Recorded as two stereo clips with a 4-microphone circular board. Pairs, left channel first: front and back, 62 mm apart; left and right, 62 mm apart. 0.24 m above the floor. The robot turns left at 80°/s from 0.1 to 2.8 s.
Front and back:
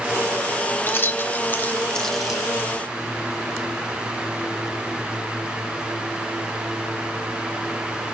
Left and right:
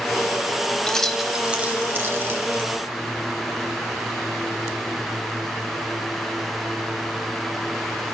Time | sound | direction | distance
0.9 | keys jangling | 25° left | 1.0 m